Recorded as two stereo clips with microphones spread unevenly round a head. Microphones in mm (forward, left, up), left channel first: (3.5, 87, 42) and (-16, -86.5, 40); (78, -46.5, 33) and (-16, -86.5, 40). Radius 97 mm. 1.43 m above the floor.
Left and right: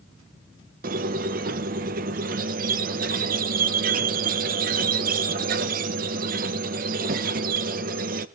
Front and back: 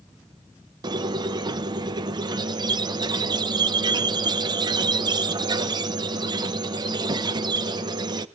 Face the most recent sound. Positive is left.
turn(degrees=-130)